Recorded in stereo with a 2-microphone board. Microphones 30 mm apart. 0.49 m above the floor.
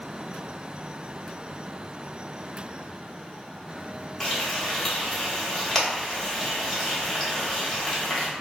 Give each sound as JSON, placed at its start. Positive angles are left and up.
{"t": 4.2, "sound": "frying", "side_deg": 20, "distance_m": 0.9}